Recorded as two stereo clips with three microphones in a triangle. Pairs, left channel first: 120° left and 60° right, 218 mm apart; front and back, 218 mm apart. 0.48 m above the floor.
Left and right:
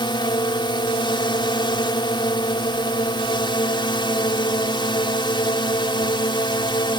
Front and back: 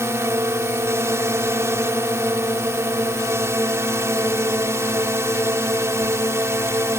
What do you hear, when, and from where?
0.0 s a drone: 125° left